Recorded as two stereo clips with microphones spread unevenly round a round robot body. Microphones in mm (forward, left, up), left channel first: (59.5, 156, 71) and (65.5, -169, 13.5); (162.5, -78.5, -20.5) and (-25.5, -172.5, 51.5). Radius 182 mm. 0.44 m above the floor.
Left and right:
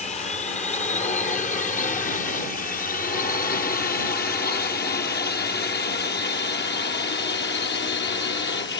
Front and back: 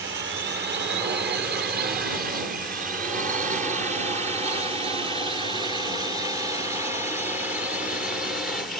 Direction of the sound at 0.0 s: 165° left.